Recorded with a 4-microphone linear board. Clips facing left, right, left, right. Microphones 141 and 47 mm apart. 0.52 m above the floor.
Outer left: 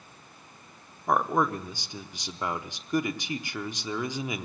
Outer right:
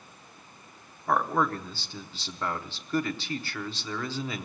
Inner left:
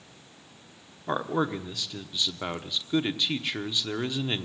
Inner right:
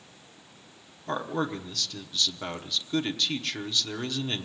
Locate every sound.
1.1 s a man speaking: 15° left (ahead or behind), 0.8 m